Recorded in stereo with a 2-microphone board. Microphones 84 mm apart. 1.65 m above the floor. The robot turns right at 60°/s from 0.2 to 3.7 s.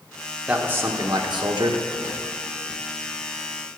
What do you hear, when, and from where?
0.5 s a man speaking: 165° right, 1.3 m; by 1.8 s 85° right, 1.3 m